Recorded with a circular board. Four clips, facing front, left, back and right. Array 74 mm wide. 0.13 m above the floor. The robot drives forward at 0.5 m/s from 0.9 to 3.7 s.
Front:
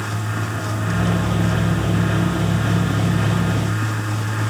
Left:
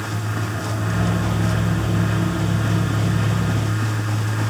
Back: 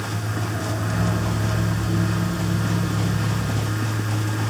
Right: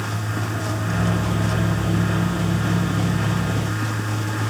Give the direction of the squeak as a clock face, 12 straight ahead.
No squeak in this recording.